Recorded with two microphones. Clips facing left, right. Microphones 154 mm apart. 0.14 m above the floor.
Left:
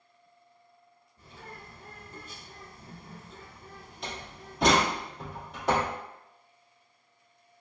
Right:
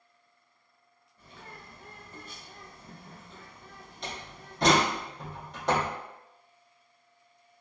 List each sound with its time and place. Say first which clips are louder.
1.2 s a bird: left 2 dB; 30° left (ahead or behind), 1.8 m
4.0 s a door slam: left 1 dB; centre (ahead or behind), 1.4 m